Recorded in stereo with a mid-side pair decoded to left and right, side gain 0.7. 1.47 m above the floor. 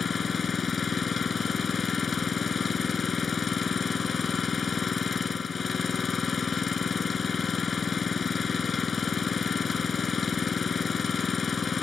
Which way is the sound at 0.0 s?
25° left.